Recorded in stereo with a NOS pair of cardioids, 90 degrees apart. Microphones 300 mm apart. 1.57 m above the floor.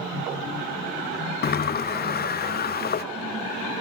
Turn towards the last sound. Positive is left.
turn(degrees=30)